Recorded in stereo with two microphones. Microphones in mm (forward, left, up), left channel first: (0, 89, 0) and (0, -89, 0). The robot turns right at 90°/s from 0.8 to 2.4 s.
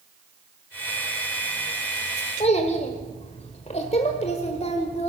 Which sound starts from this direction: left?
A child speaking, at 2.4 s.